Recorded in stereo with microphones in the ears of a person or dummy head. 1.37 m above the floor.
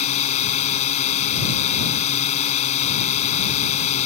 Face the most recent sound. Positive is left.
turn(degrees=40)  # may be behind; listen again after turning